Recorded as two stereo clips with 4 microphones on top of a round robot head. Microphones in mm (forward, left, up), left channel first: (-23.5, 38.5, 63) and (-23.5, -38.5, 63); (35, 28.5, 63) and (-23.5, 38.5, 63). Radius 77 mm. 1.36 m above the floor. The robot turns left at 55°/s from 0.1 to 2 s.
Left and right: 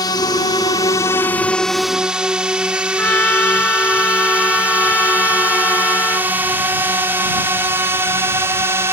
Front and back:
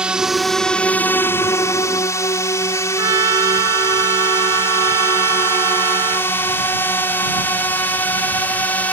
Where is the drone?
100° left; by 8.9 s 55° right.